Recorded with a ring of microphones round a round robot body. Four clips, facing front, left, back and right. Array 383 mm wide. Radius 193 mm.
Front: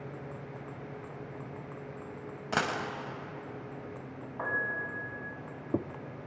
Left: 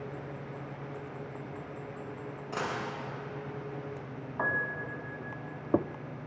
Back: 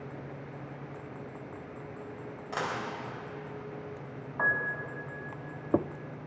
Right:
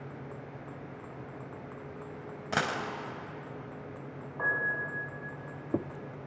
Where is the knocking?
No knocking in this recording.